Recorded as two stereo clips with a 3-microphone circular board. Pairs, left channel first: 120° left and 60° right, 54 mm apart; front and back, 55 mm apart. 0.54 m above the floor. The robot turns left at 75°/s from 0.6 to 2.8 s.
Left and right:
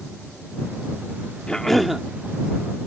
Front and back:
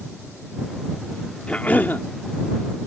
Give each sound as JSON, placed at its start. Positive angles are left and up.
{"t": 1.5, "sound": "a cough", "azimuth_deg": 55}